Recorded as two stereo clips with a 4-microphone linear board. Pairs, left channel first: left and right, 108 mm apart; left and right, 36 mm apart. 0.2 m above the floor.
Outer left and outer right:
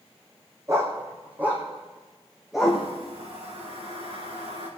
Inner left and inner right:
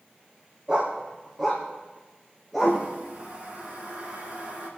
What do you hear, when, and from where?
0.7 s a dog barking: 25° right (ahead or behind), 3 m; by 2.8 s centre (ahead or behind), 3.5 m
2.6 s a toilet flushing: 65° right (ahead or behind), 5 m